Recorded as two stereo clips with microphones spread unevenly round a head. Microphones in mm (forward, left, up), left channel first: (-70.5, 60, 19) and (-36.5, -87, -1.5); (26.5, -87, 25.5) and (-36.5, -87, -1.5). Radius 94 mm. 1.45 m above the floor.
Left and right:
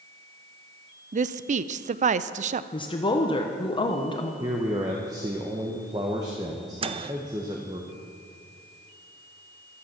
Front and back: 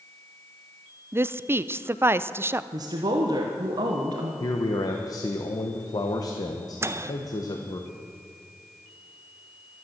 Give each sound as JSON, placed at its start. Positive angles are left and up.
{"t": 1.1, "sound": "a woman speaking", "azimuth_deg": -110, "distance_m": 0.5}
{"t": 2.7, "sound": "a woman speaking", "azimuth_deg": 160, "distance_m": 1.1}
{"t": 4.4, "sound": "a man speaking", "azimuth_deg": -5, "distance_m": 0.9}
{"t": 6.8, "sound": "a microwave", "azimuth_deg": -120, "distance_m": 0.6}